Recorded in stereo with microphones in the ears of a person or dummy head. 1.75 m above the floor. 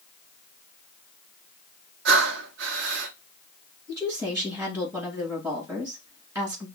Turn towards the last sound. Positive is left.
turn(degrees=-20)  # may be behind; listen again after turning